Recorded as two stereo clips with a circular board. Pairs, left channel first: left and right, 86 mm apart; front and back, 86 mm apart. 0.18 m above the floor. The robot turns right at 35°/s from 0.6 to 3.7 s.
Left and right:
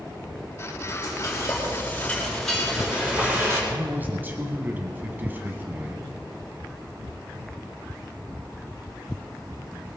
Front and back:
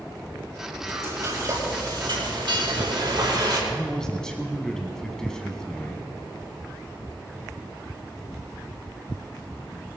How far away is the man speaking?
About 1.4 m.